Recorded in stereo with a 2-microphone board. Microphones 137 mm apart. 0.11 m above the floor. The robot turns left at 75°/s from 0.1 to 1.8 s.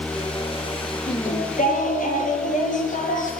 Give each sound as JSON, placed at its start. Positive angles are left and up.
{"t": 1.1, "sound": "singing", "azimuth_deg": 130, "distance_m": 9.5}